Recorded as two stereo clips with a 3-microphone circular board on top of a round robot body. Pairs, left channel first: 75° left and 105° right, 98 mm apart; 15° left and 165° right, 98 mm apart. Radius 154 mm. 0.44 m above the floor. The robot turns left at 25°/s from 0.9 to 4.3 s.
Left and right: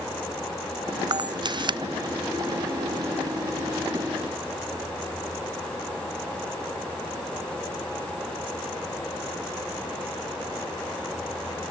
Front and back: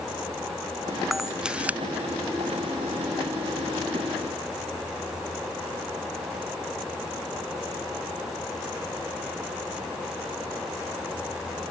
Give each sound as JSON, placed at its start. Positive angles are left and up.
{"t": 1.1, "sound": "a camera shutter", "azimuth_deg": -75}